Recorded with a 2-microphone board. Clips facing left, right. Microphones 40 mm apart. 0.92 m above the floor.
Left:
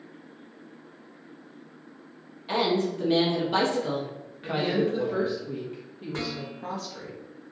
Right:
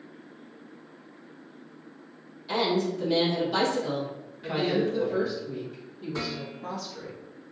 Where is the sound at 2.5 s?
35° left (ahead or behind), 1.1 m.